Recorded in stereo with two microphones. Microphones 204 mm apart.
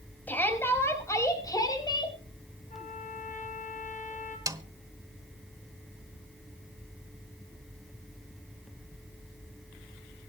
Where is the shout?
10° left (ahead or behind), 5 m; by 2.2 s 20° left (ahead or behind), 4.5 m.